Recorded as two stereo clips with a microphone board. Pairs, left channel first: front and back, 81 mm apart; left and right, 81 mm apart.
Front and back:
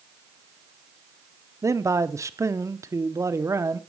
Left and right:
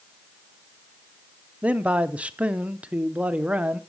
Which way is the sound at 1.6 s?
155° right.